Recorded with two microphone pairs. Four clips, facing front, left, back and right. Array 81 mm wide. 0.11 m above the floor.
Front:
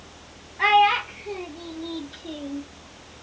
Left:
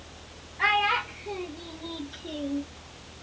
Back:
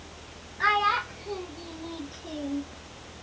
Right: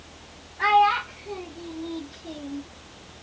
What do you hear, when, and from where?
0.6 s a child speaking: 15° left, 1.4 m; by 2.6 s 65° left, 0.7 m